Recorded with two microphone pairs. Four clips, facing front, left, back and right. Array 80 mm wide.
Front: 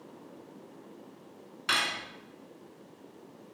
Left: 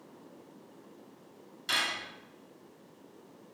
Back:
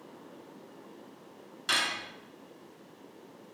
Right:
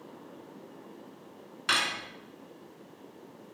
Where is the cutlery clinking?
60° right, 1.5 m.